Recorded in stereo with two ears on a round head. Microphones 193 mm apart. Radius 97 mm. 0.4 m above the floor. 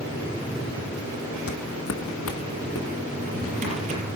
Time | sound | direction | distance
1.5 | footsteps | 70° left (ahead or behind) | 1.1 m
3.1 | a drawer | 35° right (ahead or behind) | 6 m